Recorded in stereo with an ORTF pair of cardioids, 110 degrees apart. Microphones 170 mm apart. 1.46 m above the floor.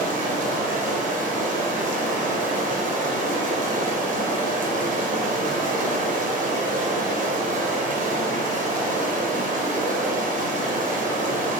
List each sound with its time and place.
0.0 s running water: 50° right, 0.7 m